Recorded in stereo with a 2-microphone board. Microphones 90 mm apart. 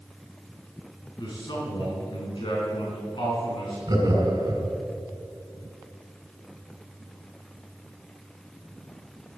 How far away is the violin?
I don't hear a violin.